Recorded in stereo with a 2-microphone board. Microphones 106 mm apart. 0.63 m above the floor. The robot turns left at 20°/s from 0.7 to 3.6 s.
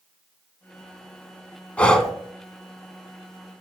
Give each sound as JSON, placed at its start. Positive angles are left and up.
{"t": 1.8, "sound": "breathing", "side_deg": 10, "distance_m": 1.5}